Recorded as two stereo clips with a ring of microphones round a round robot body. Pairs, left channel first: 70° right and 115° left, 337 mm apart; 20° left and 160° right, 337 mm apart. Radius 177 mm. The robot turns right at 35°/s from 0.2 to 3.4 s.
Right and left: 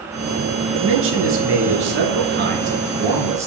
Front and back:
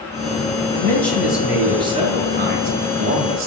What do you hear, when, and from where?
0.7 s a man speaking: 95° left, 0.9 m; by 3.5 s 170° right, 0.9 m